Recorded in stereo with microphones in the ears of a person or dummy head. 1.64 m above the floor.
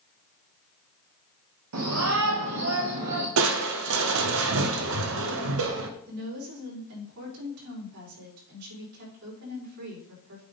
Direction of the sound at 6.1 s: 85° right.